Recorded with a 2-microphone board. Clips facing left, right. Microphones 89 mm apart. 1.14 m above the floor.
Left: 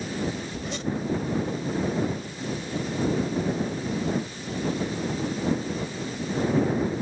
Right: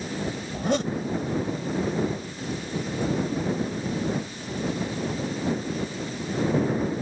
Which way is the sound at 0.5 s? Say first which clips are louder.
Right 5 dB; 55° right (ahead or behind).